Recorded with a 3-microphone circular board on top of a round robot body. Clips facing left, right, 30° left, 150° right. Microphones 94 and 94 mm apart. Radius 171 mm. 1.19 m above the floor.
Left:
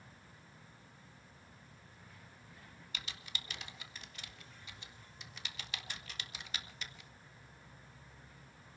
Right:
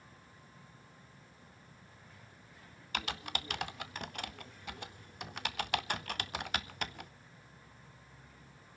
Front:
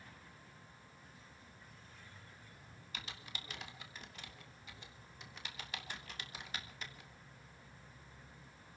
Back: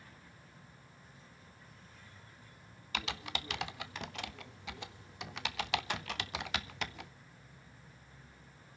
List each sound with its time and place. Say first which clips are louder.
2.9 s typing on a keyboard: right 12 dB, back 11 dB; 125° right, 0.5 m